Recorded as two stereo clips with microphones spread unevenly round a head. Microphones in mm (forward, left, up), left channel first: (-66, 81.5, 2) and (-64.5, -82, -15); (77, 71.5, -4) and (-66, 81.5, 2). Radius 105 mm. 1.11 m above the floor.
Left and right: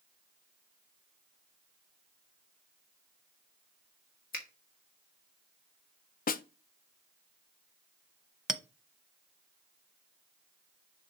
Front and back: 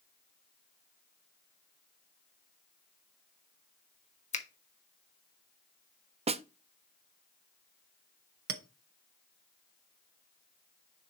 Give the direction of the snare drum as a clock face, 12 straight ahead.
8 o'clock.